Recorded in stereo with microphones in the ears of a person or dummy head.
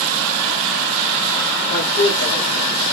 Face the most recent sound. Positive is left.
turn(degrees=45)  # may be behind; listen again after turning